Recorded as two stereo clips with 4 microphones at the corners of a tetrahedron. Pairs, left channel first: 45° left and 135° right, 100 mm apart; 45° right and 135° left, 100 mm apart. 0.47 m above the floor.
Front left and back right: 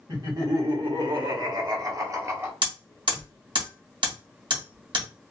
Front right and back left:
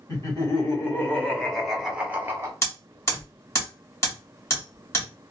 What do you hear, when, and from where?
0.1 s laughter: 95° right, 1.6 m; by 2.5 s 170° left, 0.9 m
2.6 s hammering: 105° right, 1.6 m